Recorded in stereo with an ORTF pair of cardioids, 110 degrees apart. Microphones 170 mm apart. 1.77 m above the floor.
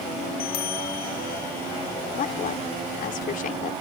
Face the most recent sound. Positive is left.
turn(degrees=55)